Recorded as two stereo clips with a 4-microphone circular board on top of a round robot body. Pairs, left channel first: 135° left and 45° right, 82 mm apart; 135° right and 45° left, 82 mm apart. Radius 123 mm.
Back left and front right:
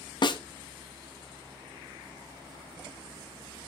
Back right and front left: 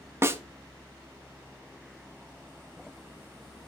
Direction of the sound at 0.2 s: 105° left.